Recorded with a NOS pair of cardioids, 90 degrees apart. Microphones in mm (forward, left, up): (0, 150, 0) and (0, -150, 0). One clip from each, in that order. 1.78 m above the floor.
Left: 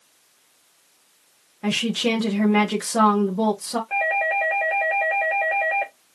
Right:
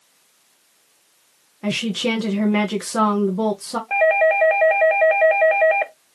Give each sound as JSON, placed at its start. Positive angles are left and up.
{"t": 1.6, "sound": "a woman speaking", "azimuth_deg": -10, "distance_m": 1.5}
{"t": 3.9, "sound": "a doorbell", "azimuth_deg": -30, "distance_m": 1.0}